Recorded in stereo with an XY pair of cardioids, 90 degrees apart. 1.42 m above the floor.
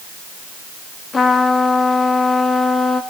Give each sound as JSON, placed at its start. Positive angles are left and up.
{"t": 1.1, "sound": "a trumpet", "azimuth_deg": 40, "distance_m": 3.0}